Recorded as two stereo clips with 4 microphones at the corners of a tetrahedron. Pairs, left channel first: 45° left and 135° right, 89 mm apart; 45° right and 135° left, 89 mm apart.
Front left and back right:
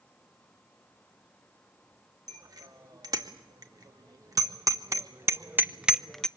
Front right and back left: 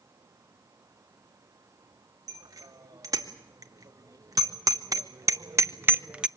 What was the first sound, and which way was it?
A bicycle bell, 175° right.